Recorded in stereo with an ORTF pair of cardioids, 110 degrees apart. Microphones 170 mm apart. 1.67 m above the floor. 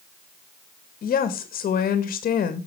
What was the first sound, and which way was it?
A woman speaking, 55° left.